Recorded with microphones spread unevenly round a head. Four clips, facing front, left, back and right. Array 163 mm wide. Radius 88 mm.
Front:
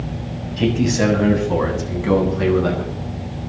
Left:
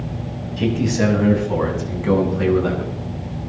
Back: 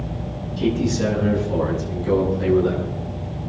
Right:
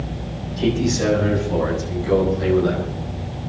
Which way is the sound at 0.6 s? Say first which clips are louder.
Left 1 dB, front 3 dB; 15° left.